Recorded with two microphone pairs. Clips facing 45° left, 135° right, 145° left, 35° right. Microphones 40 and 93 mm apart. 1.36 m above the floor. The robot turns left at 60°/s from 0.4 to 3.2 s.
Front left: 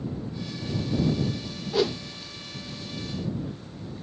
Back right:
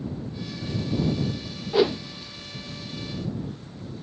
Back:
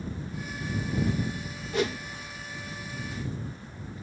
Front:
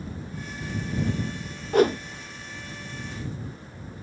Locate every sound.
1.7 s a whoosh: 60° right; by 2.0 s 75° right